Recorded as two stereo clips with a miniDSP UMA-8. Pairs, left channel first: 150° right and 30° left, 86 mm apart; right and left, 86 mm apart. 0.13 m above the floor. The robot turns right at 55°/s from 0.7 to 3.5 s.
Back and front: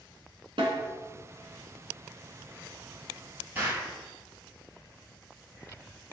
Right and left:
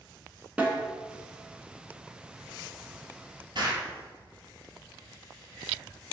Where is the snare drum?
10° left, 2.5 m; by 0.8 s 20° left, 2.5 m.